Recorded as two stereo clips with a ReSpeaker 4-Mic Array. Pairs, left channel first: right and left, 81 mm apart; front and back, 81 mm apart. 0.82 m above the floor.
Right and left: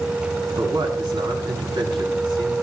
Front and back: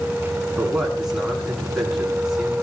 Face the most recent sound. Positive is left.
turn(degrees=95)